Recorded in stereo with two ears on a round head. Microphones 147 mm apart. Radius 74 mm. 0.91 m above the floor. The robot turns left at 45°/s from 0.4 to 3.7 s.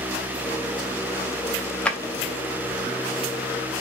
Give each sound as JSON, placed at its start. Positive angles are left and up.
{"t": 1.9, "sound": "a drawer", "side_deg": 5, "distance_m": 0.6}